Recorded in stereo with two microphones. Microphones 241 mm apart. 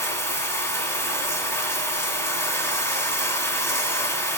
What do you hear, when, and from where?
0.0 s running water: 10° left (ahead or behind), 1.6 m